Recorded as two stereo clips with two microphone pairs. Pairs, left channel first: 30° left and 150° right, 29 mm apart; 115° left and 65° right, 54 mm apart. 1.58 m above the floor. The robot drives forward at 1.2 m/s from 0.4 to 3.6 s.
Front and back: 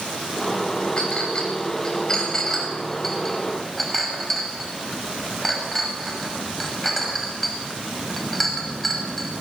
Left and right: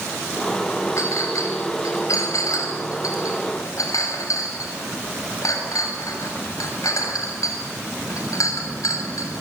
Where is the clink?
85° left, 6 m; by 9.3 s 115° left, 6.5 m.